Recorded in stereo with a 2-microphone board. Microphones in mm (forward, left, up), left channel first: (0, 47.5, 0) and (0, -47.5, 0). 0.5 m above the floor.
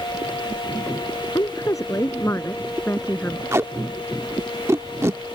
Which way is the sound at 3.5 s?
30° right (ahead or behind).